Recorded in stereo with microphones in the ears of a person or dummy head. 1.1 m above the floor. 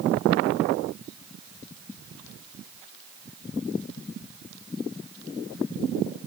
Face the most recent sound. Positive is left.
No sound to turn to.